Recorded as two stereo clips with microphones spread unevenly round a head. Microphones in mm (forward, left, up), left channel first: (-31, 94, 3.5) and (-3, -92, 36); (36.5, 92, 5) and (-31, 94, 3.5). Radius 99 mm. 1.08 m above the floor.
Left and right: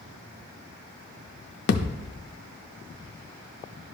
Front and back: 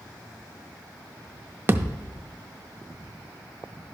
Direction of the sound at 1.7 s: 125° left.